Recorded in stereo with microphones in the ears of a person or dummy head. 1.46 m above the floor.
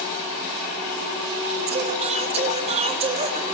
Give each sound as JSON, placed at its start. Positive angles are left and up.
{"t": 1.7, "sound": "singing", "side_deg": -30, "distance_m": 1.6}